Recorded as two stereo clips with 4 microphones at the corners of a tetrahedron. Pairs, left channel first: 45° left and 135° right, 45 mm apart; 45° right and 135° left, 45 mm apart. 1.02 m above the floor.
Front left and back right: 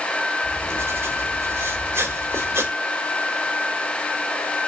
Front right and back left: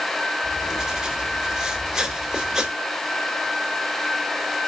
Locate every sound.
0.4 s writing: 145° right, 3 m